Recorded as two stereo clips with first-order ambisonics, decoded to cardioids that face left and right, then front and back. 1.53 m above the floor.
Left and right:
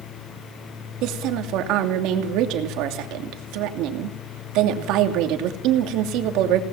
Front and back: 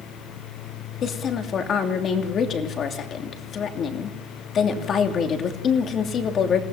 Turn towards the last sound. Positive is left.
turn(degrees=-60)